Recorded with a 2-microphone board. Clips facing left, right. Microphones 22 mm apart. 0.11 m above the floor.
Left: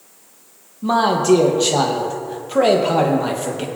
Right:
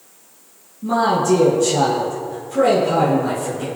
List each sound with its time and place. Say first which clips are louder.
0.8 s a man speaking: left 1 dB; 65° left (ahead or behind), 3 m